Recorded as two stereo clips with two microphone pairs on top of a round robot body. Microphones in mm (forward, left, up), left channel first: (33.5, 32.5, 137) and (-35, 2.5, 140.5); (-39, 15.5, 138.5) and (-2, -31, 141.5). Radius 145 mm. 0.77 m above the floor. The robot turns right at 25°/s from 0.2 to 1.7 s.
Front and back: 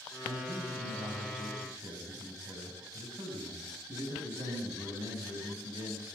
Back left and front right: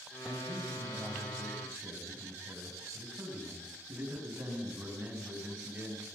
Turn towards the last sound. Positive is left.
turn(degrees=-115)